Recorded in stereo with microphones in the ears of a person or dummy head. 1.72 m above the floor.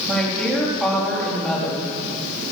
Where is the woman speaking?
5° left (ahead or behind), 4.5 m.